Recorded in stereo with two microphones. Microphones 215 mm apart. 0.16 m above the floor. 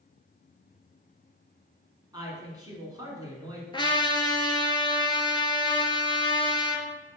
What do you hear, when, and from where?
2.1 s a woman speaking: 20° right (ahead or behind), 1.3 m
3.7 s a trumpet: 25° left (ahead or behind), 0.6 m